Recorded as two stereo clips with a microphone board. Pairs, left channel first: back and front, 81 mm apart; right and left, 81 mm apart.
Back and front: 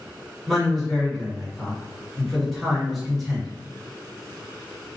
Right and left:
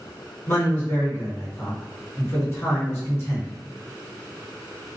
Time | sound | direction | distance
0.5 | a man speaking | 90° right | 1.7 m